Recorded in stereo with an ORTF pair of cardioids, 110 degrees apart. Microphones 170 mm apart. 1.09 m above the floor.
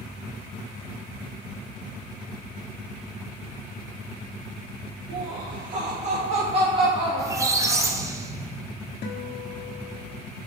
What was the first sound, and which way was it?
Laughter, 65° right.